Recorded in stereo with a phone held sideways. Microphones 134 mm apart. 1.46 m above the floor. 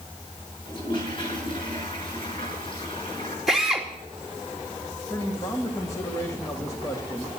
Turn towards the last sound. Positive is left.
turn(degrees=25)  # may be behind; listen again after turning